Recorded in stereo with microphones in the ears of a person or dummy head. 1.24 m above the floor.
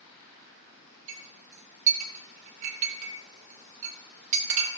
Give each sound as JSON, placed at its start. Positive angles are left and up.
{"t": 1.1, "sound": "a clink", "side_deg": -35, "distance_m": 1.1}